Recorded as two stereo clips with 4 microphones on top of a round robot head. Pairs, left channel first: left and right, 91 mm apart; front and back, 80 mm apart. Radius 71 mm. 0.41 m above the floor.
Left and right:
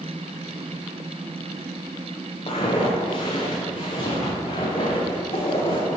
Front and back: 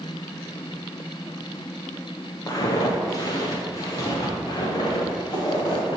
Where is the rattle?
I don't hear a rattle.